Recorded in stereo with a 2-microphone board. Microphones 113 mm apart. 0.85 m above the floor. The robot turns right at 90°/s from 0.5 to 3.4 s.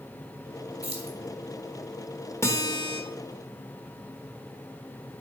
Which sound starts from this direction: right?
Keys jangling, at 0.8 s.